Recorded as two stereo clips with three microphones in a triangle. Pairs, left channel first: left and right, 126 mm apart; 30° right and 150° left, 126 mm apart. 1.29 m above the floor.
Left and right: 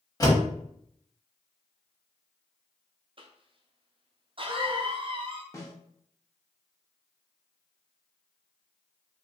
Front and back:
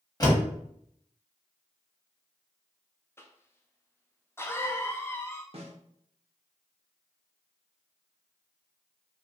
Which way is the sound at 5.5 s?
145° left.